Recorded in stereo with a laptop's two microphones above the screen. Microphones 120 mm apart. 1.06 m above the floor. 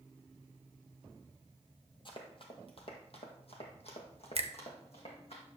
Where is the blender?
I don't hear a blender.